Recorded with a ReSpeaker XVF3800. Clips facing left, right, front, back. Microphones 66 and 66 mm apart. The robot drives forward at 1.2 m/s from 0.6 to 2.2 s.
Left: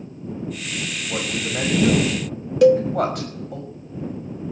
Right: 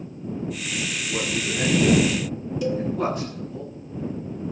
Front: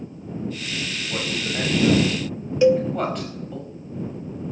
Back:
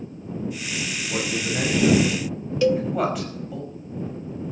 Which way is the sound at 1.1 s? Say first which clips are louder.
Left 1 dB, back 2 dB; 85° left.